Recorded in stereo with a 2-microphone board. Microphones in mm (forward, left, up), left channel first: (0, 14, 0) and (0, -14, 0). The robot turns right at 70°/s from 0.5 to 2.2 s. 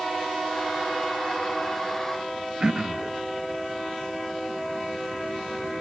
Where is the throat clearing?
25° right (ahead or behind), 0.8 m.